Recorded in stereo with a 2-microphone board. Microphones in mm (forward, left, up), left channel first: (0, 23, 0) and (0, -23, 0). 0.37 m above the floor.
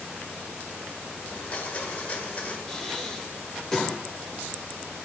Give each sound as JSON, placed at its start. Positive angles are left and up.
{"t": 1.3, "sound": "a blender", "side_deg": 30, "distance_m": 1.6}
{"t": 2.7, "sound": "breathing", "side_deg": 10, "distance_m": 1.1}